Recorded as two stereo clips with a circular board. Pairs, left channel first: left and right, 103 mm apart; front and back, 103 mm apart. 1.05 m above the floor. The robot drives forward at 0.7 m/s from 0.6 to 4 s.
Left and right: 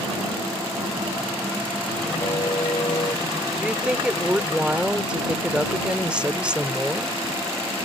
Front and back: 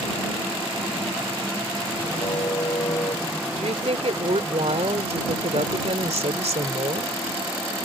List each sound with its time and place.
2.2 s a car horn: 45° left; by 3.3 s 50° left
3.6 s a woman speaking: 170° right